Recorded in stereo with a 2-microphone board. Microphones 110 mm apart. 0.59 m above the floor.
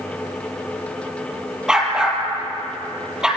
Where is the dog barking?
5° right (ahead or behind), 3.5 m.